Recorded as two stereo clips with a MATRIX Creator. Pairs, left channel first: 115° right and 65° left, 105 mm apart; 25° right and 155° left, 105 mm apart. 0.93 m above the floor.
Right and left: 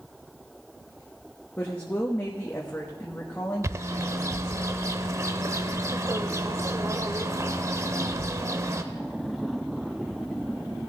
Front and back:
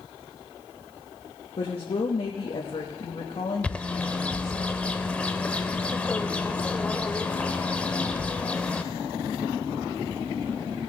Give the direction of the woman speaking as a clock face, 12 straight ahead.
1 o'clock.